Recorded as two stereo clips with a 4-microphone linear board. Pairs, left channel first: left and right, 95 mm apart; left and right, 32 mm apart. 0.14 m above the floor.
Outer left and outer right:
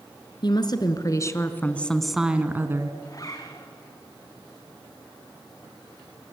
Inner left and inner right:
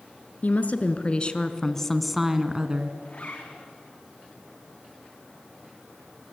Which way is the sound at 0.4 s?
50° left (ahead or behind).